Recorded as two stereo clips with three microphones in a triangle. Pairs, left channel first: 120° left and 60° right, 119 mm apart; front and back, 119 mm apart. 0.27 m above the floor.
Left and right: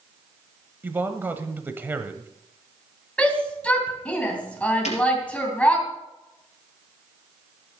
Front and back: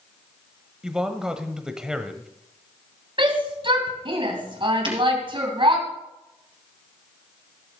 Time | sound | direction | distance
0.8 | a man speaking | 105° right | 1.0 m
3.2 | a shout | 165° right | 2.5 m
4.8 | breaking glass | 135° left | 3 m